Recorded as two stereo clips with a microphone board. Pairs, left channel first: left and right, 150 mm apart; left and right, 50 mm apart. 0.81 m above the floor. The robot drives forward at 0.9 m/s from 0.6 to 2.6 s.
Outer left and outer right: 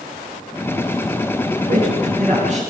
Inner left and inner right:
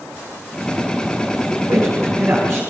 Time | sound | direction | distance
1.7 | a man speaking | 60° right (ahead or behind) | 8 m